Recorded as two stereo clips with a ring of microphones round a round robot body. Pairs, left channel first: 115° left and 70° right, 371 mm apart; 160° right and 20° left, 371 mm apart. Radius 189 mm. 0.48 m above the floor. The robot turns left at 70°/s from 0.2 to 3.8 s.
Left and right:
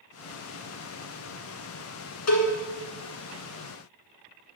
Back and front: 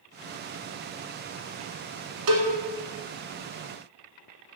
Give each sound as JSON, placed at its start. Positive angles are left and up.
{"t": 2.3, "sound": "a cowbell", "azimuth_deg": 65, "distance_m": 1.4}